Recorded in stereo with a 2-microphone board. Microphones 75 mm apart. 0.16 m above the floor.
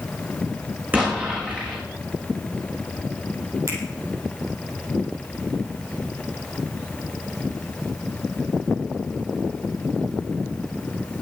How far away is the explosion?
About 7.5 m.